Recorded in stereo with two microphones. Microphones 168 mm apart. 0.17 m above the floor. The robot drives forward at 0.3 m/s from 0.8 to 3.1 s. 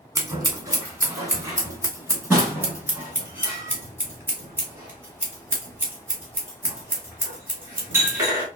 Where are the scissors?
20° right (ahead or behind), 1.2 m; by 8.5 s 15° right (ahead or behind), 1.6 m.